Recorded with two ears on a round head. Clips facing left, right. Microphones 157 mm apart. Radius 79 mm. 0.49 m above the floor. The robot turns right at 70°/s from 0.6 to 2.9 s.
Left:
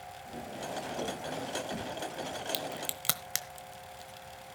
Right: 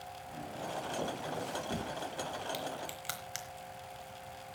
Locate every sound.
0.3 s footsteps: 30° left (ahead or behind), 7 m; by 1.9 s 70° right (ahead or behind), 8.5 m
2.5 s a crack: 40° left (ahead or behind), 1.1 m; by 4.5 s 60° left (ahead or behind), 1.1 m